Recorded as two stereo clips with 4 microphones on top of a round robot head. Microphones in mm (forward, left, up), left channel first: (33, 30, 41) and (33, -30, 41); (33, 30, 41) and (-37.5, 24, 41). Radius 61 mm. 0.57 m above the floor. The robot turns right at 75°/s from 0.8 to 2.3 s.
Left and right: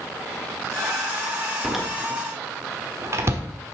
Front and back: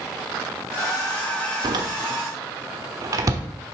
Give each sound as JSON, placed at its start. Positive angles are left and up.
{"t": 1.6, "sound": "a door slam", "azimuth_deg": 175, "distance_m": 1.3}